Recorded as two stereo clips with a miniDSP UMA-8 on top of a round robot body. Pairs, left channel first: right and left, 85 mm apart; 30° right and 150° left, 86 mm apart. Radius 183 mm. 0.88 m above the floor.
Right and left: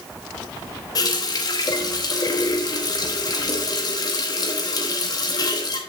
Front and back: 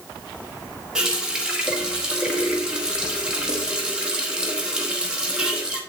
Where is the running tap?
130° right, 1.7 m.